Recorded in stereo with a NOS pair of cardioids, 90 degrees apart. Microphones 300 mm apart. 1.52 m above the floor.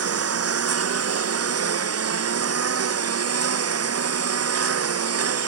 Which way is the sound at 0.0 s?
50° right.